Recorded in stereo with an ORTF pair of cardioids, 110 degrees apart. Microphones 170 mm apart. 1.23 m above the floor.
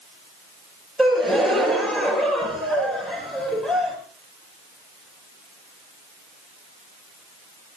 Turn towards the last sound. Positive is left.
turn(degrees=0)